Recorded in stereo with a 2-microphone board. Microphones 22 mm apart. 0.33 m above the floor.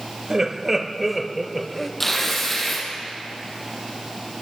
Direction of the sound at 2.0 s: 10° left (ahead or behind).